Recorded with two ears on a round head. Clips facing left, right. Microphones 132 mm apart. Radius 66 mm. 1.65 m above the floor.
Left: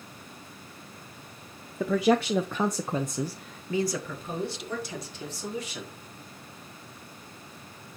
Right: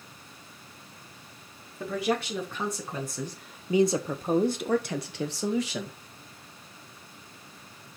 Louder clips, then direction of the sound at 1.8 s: Left 6 dB; 60° left (ahead or behind).